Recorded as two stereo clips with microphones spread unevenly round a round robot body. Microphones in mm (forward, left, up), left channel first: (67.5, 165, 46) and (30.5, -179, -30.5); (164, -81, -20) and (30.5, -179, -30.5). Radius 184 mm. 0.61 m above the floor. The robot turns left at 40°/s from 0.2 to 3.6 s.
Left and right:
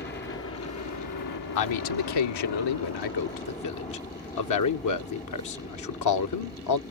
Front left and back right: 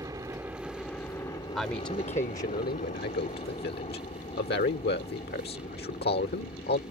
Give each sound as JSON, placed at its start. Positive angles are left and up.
{"t": 0.0, "sound": "a helicopter", "azimuth_deg": 150}
{"t": 1.6, "sound": "a man speaking", "azimuth_deg": 125}